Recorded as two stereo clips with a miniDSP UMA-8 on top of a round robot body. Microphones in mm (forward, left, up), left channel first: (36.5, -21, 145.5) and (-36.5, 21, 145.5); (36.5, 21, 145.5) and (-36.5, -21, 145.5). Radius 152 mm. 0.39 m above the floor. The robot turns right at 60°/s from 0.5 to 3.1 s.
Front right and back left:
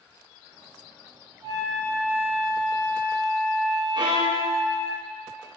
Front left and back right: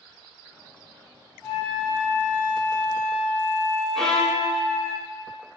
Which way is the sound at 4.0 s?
115° left.